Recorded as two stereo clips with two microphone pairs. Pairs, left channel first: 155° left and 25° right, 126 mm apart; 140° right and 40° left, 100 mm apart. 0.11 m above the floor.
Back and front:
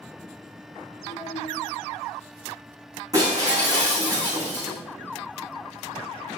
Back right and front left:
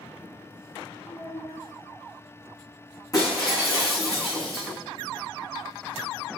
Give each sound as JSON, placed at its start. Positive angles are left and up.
{"t": 1.1, "sound": "a child speaking", "azimuth_deg": 165, "distance_m": 1.4}
{"t": 3.1, "sound": "breaking glass", "azimuth_deg": -85, "distance_m": 5.5}